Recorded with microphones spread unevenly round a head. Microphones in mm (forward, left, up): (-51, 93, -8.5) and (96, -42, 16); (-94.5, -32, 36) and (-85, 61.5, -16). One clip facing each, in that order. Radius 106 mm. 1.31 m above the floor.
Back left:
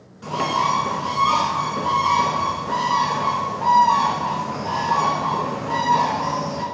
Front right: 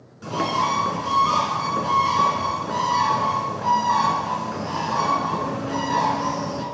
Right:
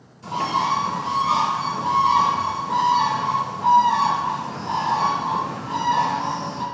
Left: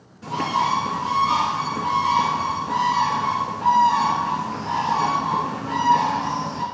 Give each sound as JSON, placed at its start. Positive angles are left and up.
{"t": 0.2, "sound": "a bird", "azimuth_deg": 20, "distance_m": 2.5}